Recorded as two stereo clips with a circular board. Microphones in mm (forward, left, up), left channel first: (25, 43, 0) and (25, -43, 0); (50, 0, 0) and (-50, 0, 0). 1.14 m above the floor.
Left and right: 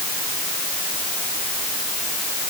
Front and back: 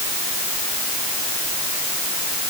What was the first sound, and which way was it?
Only background noise.